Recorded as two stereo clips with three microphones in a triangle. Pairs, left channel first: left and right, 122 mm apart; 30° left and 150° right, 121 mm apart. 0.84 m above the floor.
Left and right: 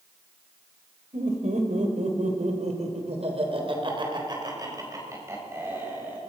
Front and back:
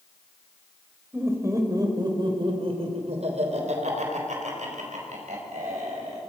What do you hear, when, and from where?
1.1 s laughter: 80° right, 4 m; by 6.2 s 165° right, 5.5 m